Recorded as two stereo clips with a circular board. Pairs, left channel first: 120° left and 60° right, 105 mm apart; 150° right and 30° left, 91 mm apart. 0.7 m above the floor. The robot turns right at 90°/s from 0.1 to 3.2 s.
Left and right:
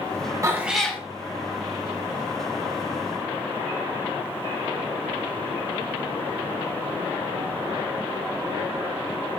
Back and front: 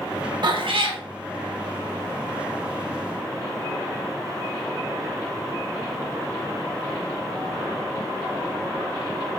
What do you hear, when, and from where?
0.4 s a cat meowing: 5° right, 0.6 m; by 1.0 s 50° left, 0.6 m